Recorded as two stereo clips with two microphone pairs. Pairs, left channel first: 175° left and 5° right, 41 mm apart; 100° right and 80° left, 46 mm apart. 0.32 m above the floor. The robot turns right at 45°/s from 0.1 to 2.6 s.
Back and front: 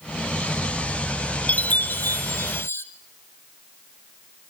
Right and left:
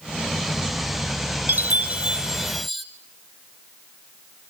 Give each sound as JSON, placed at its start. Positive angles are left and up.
{"t": 1.5, "sound": "a chime", "azimuth_deg": 125, "distance_m": 1.4}